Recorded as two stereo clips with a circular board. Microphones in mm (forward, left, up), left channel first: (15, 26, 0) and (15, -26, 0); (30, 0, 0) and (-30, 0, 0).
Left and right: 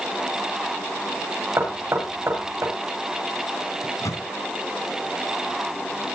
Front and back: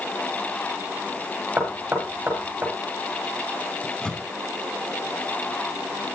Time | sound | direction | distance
1.6 | knocking | 115° right | 6.5 m
3.8 | a microwave | 75° left | 4.5 m